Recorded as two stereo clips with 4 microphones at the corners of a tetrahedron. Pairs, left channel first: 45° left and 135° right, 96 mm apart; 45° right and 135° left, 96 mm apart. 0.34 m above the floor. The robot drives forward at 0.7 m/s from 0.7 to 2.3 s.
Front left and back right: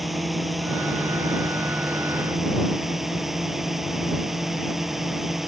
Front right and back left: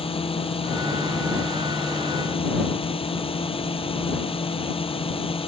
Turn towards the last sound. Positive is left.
turn(degrees=-50)